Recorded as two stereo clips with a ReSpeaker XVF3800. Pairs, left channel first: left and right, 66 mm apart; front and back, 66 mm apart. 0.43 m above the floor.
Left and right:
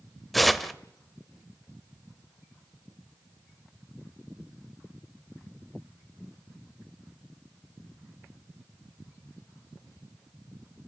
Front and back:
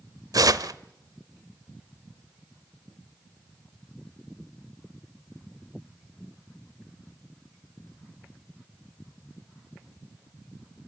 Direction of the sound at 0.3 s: Straight behind.